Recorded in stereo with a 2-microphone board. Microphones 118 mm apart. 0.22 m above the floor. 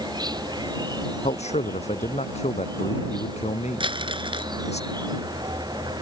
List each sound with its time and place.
0.0 s an insect: 35° right (ahead or behind)
1.2 s a man speaking: 70° left (ahead or behind)
3.8 s crumpling: 45° right (ahead or behind)